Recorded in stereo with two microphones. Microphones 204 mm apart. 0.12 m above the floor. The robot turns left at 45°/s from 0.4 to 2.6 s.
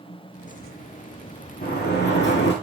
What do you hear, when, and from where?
1.6 s a sliding door: 125° left, 3 m; by 2.5 s 85° left, 3 m